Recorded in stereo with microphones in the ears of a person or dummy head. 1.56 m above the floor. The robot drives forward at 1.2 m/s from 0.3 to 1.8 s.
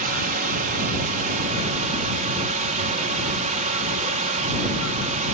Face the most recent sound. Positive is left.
turn(degrees=-40)  # may be behind; listen again after turning